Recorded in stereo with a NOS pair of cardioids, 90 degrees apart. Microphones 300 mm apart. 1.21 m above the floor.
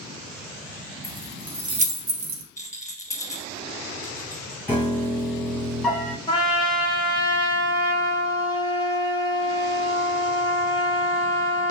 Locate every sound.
1.0 s keys jangling: 10° left, 1.0 m; by 2.4 s 70° right, 0.6 m
2.6 s a rattle: 10° left, 1.0 m
4.7 s a piano: 5° left, 1.0 m
6.3 s a trumpet: 15° left, 0.9 m